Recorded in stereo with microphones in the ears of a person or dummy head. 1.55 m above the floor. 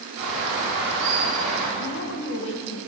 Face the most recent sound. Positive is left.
turn(degrees=65)  # may be behind; listen again after turning